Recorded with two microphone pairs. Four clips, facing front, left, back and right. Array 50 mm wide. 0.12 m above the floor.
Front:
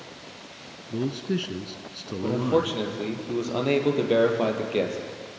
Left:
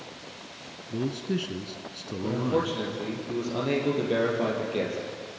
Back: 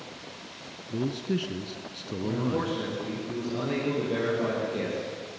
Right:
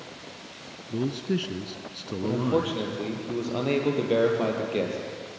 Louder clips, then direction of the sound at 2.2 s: Right 1 dB, front 5 dB; 25° right.